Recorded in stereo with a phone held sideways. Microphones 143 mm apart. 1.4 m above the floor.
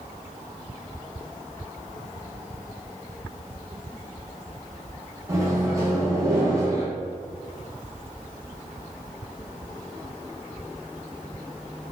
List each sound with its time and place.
5.3 s a microwave: 25° right (ahead or behind), 0.8 m